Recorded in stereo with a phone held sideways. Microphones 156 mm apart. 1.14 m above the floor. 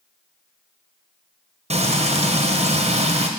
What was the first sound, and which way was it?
Frying, 40° right (ahead or behind).